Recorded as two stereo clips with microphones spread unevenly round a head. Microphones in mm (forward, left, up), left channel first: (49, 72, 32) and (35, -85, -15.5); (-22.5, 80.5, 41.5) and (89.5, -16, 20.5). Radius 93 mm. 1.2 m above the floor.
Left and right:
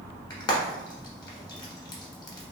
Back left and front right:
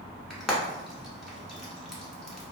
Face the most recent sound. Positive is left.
turn(degrees=65)